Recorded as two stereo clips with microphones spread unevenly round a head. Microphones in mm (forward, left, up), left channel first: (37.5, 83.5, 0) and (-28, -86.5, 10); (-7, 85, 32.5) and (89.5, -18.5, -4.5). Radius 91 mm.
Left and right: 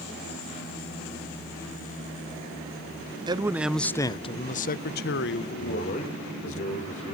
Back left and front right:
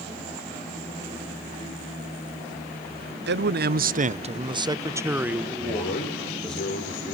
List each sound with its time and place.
3.3 s a man speaking: 45° right, 0.9 m; by 6.6 s 50° left, 2.5 m
5.6 s a man speaking: 125° left, 5 m